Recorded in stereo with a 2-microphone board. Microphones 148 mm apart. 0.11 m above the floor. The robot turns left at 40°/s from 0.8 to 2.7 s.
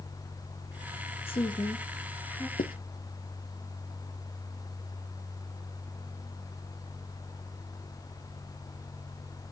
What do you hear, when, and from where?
1.3 s a woman speaking: 40° left (ahead or behind), 1.7 m; by 2.5 s 5° left (ahead or behind), 1.7 m
2.6 s writing: 80° left, 0.8 m; by 2.7 s 75° left (ahead or behind), 0.8 m